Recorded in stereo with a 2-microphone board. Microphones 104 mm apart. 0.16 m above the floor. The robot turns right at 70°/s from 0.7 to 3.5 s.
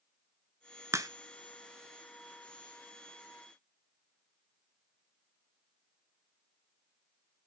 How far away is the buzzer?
I don't hear a buzzer.